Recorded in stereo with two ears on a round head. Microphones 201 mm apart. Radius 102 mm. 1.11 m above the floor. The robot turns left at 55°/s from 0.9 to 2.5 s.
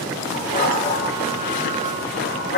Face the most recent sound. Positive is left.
turn(degrees=50)  # may be behind; listen again after turning